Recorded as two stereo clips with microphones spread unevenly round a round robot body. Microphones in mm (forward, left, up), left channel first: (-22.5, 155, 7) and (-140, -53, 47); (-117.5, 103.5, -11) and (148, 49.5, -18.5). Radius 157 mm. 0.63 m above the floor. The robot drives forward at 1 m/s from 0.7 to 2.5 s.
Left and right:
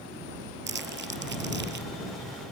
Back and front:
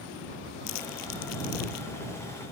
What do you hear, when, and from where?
0.7 s crumpling: 160° right; by 1.9 s 165° right